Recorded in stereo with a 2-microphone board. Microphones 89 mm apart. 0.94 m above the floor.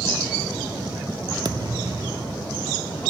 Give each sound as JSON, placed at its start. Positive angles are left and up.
{"t": 1.4, "sound": "a thud", "side_deg": -50}